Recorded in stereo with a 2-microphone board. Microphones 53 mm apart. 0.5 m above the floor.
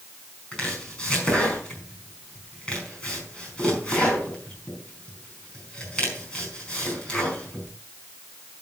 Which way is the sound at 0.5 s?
15° left (ahead or behind).